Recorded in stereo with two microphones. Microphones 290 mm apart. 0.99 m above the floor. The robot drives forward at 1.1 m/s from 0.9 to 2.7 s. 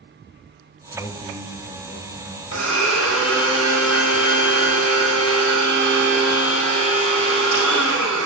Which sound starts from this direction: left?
A blender, at 2.5 s.